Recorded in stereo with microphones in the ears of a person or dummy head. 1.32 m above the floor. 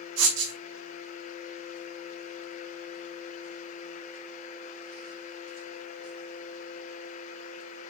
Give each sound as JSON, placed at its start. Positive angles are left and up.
{"t": 0.2, "sound": "writing", "side_deg": -65, "distance_m": 1.8}